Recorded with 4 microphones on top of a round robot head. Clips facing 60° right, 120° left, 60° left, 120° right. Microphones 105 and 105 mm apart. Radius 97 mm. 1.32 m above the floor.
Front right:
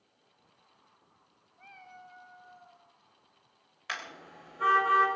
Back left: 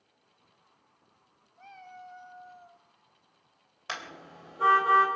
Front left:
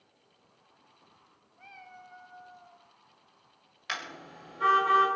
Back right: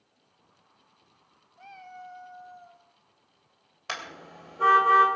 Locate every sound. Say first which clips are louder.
1.6 s a cat meowing: back left 4 dB, back right 6 dB; straight behind, 0.9 m
3.9 s a car horn: back left 1 dB, back right 1 dB; 175° right, 3 m